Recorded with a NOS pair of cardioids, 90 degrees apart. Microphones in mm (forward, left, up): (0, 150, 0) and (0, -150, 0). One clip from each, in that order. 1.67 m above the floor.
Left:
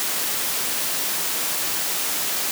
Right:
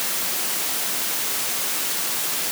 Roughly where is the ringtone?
I don't hear a ringtone.